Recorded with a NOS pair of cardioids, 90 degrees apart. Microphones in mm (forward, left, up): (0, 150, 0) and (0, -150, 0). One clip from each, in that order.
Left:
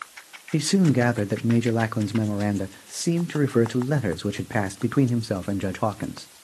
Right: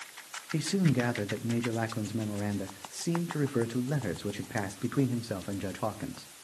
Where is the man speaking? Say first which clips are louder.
Left 8 dB; 40° left, 0.8 m.